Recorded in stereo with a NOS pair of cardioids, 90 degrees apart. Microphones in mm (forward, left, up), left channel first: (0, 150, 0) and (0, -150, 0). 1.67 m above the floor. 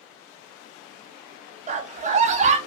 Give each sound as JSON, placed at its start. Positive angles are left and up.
{"t": 1.7, "sound": "a scream", "azimuth_deg": -25, "distance_m": 0.5}